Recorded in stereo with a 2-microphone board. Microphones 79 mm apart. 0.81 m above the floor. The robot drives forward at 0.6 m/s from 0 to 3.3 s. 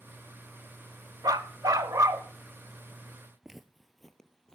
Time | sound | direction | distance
1.2 | a dog barking | 55° right (ahead or behind) | 0.7 m
3.4 | footsteps | 5° right (ahead or behind) | 0.9 m